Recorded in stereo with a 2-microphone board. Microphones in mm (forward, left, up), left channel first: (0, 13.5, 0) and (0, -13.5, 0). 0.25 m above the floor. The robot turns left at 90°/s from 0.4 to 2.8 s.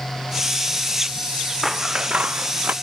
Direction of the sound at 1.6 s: 5° right.